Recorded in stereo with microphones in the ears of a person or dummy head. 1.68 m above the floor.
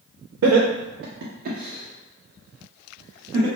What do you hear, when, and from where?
0.4 s laughter: 75° right (ahead or behind), 0.5 m; by 3.5 s 10° right (ahead or behind), 1.4 m